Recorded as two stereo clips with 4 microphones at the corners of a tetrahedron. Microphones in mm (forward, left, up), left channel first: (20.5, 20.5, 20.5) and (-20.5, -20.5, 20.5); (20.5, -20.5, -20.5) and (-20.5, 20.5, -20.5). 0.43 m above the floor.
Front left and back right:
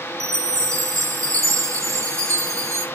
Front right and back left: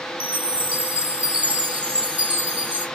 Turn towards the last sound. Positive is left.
turn(degrees=-160)